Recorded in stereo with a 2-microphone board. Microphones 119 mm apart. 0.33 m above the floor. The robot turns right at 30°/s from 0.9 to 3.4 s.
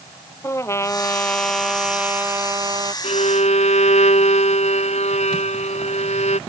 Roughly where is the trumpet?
Behind left.